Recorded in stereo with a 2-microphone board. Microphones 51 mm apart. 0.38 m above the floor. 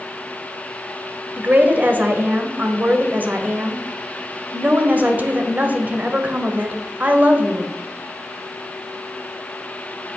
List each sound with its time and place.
1.4 s a woman speaking: 30° right (ahead or behind), 1.3 m